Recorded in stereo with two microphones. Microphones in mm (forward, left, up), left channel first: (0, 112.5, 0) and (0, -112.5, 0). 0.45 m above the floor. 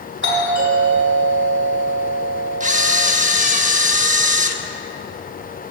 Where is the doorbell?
65° right (ahead or behind), 4.5 m.